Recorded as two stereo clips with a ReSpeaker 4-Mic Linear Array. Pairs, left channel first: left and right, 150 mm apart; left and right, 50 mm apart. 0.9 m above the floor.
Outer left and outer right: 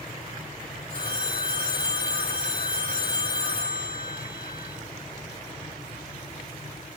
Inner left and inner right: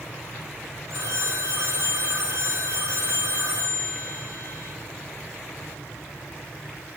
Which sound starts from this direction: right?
A phone ringing, at 0.9 s.